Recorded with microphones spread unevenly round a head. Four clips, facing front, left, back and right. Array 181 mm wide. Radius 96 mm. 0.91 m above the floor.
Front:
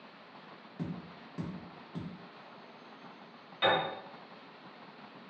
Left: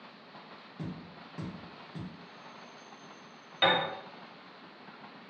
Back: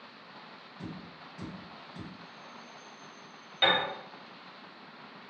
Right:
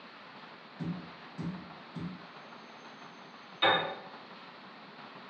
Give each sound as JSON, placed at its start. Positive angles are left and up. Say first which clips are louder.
{"t": 0.8, "sound": "tapping", "louder": "right 3 dB, front 3 dB", "azimuth_deg": 30, "distance_m": 0.7}
{"t": 3.6, "sound": "a piano", "louder": "left 1 dB, back 1 dB", "azimuth_deg": 135, "distance_m": 1.4}